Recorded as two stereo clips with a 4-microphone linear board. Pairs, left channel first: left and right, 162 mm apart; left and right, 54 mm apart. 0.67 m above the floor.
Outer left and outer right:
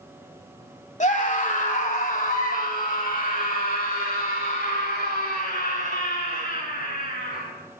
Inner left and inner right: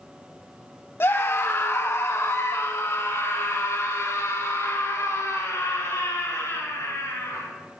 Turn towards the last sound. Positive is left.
turn(degrees=65)  # may be behind; listen again after turning